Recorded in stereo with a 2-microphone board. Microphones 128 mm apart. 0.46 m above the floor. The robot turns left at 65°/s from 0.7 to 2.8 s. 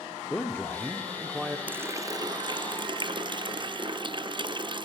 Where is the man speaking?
15° left (ahead or behind), 0.7 m; by 1.6 s 10° right (ahead or behind), 0.7 m.